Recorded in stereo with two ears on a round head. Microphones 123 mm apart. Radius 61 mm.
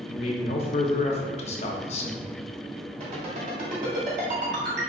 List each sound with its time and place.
0.1 s a man speaking: 50° left (ahead or behind), 0.5 m
3.0 s a ringtone: 50° right (ahead or behind), 1.5 m